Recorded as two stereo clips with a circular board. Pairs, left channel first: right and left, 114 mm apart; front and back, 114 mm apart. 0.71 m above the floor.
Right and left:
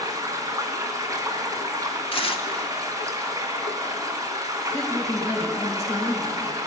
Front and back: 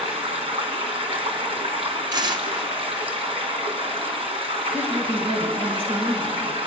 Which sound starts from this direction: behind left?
Running water, at 0.0 s.